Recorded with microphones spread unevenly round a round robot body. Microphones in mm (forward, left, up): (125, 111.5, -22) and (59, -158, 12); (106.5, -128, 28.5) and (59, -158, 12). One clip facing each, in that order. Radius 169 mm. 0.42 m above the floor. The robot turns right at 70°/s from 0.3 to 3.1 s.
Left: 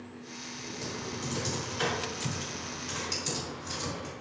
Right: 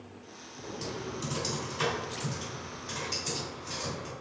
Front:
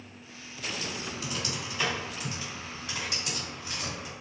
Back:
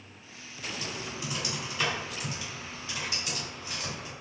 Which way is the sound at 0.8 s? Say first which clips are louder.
Right 1 dB, front 1 dB; 130° right.